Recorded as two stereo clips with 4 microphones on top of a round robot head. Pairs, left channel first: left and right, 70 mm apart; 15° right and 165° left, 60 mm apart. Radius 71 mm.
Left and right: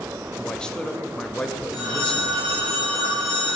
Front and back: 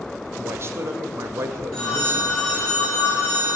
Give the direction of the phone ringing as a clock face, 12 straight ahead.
9 o'clock.